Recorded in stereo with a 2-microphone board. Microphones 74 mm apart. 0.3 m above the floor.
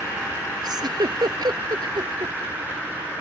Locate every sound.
0.6 s a giggle: 70° right (ahead or behind)